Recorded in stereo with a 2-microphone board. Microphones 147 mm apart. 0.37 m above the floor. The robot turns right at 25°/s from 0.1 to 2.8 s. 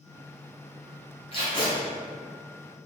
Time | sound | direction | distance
1.3 | tape being pulled | 40° left (ahead or behind) | 1.5 m